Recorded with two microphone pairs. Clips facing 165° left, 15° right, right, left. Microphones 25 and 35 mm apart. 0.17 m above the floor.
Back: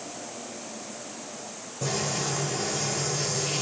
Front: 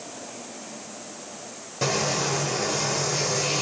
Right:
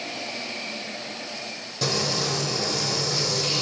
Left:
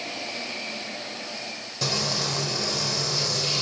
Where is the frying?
Straight ahead, 6.5 m.